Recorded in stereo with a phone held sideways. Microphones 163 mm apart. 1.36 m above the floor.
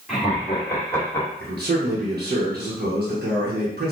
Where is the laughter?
Centre (ahead or behind), 2 m; by 1.3 s 25° left (ahead or behind), 1.9 m.